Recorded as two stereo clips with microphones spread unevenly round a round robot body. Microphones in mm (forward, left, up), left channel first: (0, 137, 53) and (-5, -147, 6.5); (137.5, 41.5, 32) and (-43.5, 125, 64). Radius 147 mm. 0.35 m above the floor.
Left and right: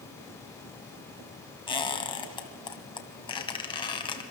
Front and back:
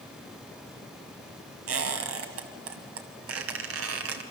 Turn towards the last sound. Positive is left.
turn(degrees=165)